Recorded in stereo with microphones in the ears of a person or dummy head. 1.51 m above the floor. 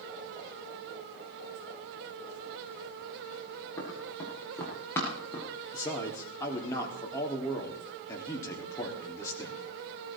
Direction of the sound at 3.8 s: 20° left (ahead or behind).